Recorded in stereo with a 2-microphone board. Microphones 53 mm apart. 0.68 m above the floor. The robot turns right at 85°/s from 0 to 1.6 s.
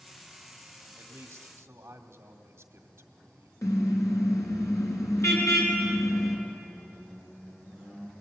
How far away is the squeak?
About 9 m.